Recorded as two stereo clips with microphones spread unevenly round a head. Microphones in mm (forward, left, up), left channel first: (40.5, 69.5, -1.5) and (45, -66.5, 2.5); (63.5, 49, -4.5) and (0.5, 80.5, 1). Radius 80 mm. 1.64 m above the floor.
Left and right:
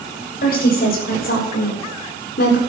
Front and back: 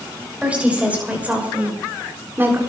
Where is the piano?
I don't hear a piano.